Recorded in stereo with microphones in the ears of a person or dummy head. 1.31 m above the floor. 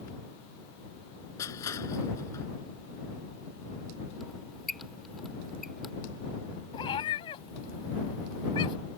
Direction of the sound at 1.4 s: 15° left (ahead or behind).